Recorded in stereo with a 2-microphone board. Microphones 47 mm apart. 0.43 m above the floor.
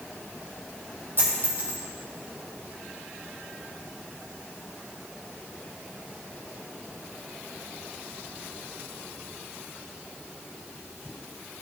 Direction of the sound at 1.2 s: 50° right (ahead or behind).